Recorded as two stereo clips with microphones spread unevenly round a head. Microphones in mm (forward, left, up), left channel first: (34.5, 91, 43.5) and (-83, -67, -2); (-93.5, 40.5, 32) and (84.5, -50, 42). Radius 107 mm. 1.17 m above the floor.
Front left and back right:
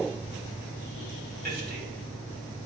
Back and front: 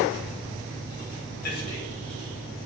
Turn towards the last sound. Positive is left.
turn(degrees=-170)